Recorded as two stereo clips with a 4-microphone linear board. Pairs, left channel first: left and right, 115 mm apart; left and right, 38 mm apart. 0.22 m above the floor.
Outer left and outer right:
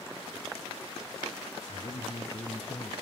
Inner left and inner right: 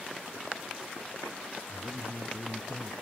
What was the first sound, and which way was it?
A man speaking, 60° left (ahead or behind).